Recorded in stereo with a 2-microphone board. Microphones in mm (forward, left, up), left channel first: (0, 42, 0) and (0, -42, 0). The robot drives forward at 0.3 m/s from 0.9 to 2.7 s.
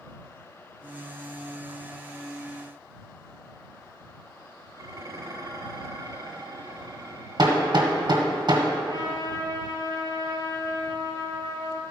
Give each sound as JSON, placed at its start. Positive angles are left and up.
{"t": 4.8, "sound": "dishes clattering", "side_deg": -45, "distance_m": 1.3}
{"t": 7.4, "sound": "hammering", "side_deg": -60, "distance_m": 1.3}
{"t": 8.8, "sound": "a trumpet", "side_deg": 50, "distance_m": 1.8}